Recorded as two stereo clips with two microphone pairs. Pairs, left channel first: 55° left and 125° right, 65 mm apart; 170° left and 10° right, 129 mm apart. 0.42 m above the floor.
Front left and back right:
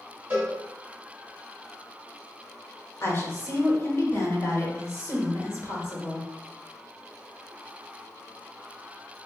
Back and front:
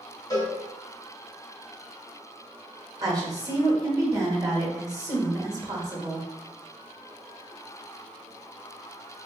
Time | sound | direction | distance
0.3 | a cowbell | 165° right | 1.3 m
3.0 | a woman speaking | 40° left | 1.0 m